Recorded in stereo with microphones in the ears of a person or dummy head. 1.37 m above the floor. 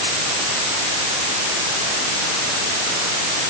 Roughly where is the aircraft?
I don't hear an aircraft.